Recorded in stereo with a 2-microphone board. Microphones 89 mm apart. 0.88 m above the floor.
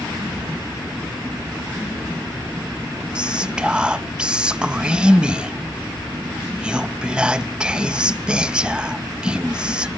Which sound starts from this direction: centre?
Whispering, at 3.1 s.